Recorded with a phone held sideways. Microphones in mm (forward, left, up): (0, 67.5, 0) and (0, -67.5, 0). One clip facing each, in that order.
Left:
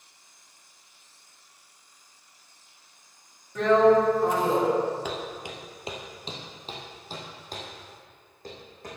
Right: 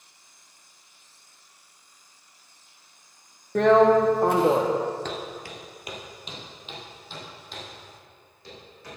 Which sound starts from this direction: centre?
Footsteps, at 5.0 s.